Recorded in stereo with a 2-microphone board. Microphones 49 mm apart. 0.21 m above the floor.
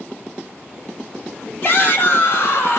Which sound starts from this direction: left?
A shout, at 1.6 s.